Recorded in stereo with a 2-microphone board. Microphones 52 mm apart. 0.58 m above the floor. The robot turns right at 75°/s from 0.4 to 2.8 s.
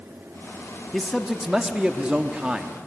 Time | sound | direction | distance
0.9 | a man speaking | 5° left (ahead or behind) | 1.0 m